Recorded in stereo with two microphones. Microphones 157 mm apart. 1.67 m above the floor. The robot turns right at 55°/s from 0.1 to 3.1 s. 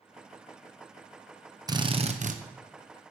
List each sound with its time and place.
1.7 s a drill: 155° right, 0.9 m; by 2.4 s 115° right, 0.9 m